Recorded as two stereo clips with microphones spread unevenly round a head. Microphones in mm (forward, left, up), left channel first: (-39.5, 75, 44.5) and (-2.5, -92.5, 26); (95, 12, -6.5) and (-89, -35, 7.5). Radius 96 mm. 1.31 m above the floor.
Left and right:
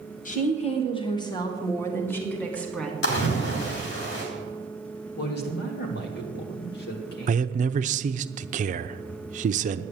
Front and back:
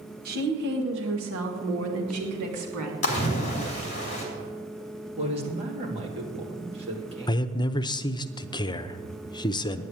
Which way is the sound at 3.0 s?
70° left.